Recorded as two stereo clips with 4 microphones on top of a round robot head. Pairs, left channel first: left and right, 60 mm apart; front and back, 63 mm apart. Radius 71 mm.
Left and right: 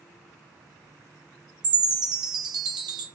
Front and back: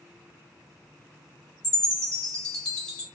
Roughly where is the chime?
Right.